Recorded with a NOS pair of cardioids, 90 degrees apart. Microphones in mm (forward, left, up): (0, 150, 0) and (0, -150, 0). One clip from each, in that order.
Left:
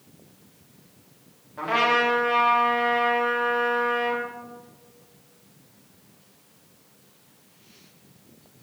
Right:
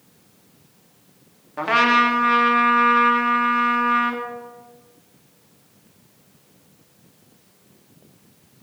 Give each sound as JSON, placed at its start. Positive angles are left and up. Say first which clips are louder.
{"t": 1.6, "sound": "a trumpet", "louder": "right 5 dB", "azimuth_deg": -55, "distance_m": 2.5}